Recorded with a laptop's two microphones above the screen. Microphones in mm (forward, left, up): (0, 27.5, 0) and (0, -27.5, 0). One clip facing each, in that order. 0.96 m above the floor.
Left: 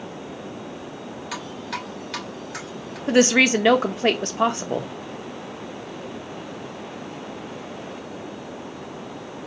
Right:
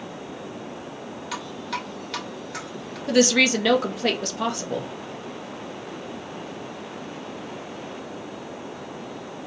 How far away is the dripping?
About 2.5 m.